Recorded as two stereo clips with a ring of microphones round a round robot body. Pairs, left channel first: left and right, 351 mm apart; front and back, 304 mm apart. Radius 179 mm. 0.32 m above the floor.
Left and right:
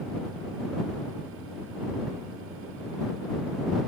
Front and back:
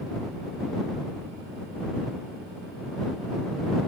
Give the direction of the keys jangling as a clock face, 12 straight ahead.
No keys jangling in this recording.